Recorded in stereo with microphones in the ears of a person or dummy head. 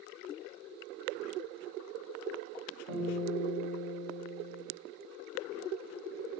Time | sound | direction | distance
2.9 | a guitar | 5° left (ahead or behind) | 3.5 m